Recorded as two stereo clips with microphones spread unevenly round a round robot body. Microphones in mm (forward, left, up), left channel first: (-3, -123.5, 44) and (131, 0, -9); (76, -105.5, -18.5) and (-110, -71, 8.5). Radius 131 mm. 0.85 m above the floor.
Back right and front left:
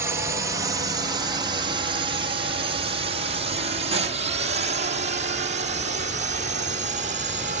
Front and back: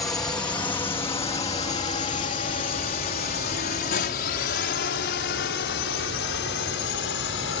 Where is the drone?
65° left; by 7.6 s 15° left.